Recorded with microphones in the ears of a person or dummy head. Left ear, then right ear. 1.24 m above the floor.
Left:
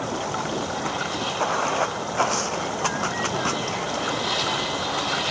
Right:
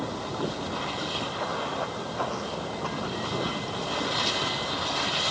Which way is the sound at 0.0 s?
55° left (ahead or behind).